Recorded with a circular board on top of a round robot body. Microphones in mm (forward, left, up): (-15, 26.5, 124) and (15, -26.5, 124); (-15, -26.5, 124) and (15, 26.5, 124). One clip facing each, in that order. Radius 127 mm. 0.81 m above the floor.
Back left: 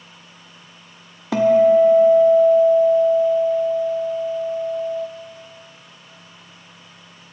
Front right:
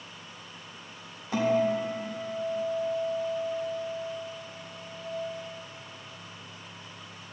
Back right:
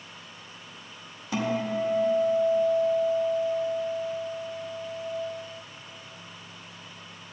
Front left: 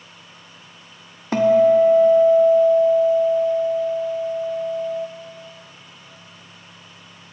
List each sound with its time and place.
1.3 s a guitar: 105° left, 0.5 m